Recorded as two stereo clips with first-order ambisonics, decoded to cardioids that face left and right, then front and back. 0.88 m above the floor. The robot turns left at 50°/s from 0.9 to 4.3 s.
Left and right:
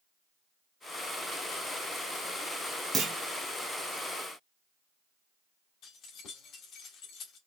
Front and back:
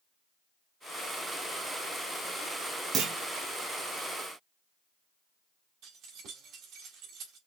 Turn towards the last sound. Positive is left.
turn(degrees=140)